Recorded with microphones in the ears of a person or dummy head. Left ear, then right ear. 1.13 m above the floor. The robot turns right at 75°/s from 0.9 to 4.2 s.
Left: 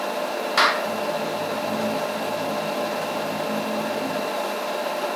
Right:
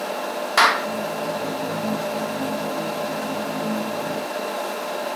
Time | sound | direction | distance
0.6 | a clap | 10° right (ahead or behind) | ?